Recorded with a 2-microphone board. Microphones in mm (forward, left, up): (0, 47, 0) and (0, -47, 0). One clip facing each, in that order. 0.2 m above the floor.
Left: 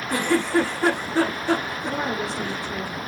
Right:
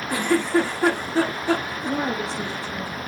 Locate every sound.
0.1 s a giggle: 15° right (ahead or behind), 5.5 m
1.9 s a woman speaking: 25° right (ahead or behind), 5 m